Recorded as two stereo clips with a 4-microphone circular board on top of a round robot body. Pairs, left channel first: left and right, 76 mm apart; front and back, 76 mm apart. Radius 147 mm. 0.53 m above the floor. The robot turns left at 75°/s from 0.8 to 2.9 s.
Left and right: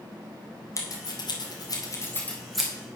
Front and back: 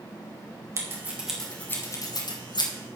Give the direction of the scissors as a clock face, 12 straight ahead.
8 o'clock.